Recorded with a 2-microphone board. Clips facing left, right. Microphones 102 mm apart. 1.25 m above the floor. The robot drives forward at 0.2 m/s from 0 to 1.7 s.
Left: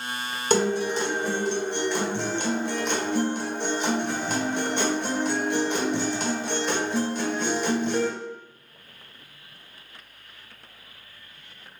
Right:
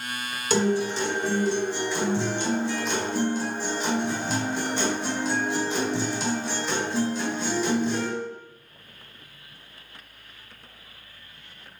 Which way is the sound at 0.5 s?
50° left (ahead or behind).